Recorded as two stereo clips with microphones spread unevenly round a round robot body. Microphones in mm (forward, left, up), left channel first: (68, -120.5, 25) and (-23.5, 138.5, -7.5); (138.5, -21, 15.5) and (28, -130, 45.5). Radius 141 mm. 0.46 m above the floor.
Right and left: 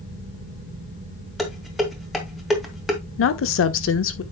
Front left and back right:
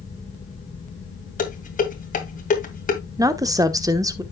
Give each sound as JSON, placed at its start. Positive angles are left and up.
{"t": 1.4, "sound": "dishes clattering", "azimuth_deg": 20, "distance_m": 2.0}
{"t": 3.2, "sound": "a woman speaking", "azimuth_deg": -65, "distance_m": 1.2}